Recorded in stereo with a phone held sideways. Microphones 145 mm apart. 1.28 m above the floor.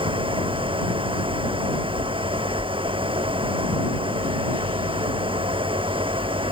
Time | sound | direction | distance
0.0 | a fan | 40° right (ahead or behind) | ?